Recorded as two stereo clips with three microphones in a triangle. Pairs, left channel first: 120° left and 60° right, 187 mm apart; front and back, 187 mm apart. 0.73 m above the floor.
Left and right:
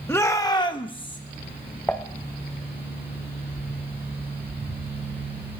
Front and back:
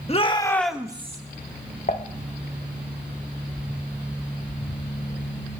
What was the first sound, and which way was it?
A shout, 45° left.